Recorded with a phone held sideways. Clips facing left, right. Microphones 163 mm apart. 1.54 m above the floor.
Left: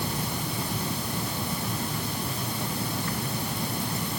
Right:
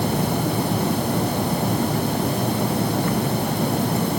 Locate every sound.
0.0 s a fan: 65° right (ahead or behind)